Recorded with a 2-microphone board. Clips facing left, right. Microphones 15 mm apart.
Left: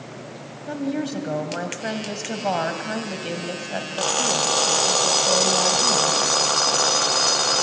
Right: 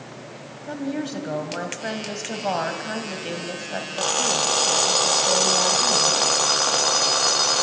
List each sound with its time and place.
0.7 s a woman speaking: centre (ahead or behind), 1.6 m